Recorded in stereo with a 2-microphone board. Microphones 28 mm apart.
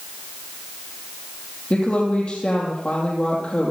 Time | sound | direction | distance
1.7 | a woman speaking | 40° left (ahead or behind) | 2.5 m